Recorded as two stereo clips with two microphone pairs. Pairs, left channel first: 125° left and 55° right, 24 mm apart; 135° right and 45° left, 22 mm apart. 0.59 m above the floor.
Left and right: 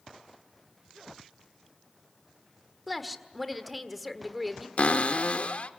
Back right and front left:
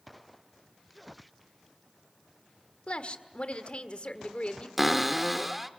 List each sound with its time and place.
2.9 s a woman speaking: 145° right, 1.5 m
4.8 s a cupboard door: 130° left, 0.8 m